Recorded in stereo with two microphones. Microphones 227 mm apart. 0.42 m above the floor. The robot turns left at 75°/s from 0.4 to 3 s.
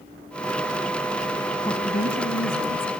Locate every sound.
1.6 s a woman speaking: 165° left, 2.5 m; by 2.9 s 70° left, 2.5 m